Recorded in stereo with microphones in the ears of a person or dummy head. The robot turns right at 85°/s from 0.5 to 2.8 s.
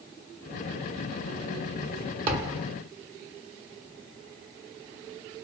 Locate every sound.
2.3 s a thud: 45° right (ahead or behind), 1.0 m; by 2.6 s 20° right (ahead or behind), 1.0 m